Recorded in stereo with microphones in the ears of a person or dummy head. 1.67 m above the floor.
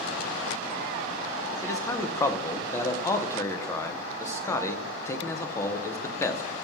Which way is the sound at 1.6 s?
10° left (ahead or behind).